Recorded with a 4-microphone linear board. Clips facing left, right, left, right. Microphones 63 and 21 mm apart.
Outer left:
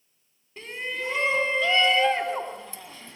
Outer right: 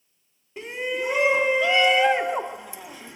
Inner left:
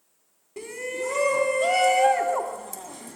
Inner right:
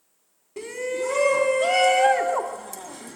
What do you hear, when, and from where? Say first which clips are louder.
0.6 s a shout: outer right 5 dB, inner right 3 dB; 10° right (ahead or behind), 1.7 m